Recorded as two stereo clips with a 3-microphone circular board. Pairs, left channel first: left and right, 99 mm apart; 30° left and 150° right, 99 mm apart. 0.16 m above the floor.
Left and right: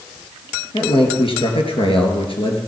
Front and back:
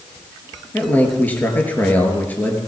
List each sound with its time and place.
0.7 s a man speaking: 100° left, 3.5 m